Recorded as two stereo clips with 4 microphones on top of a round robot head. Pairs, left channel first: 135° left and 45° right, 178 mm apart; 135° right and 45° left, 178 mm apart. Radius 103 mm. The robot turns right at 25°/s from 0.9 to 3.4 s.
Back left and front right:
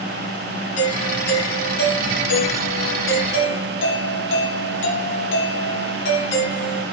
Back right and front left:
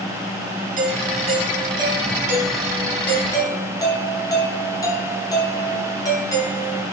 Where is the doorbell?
85° left, 6 m; by 6.8 s 150° left, 6 m.